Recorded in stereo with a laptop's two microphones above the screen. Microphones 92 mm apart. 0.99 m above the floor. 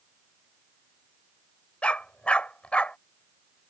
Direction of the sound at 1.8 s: 15° left (ahead or behind).